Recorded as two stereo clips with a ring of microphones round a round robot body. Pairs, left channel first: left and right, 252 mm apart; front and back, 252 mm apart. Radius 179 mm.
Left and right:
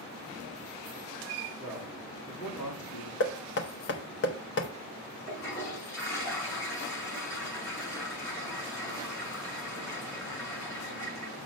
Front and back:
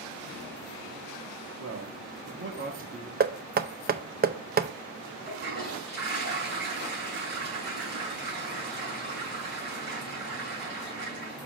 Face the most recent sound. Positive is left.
turn(degrees=135)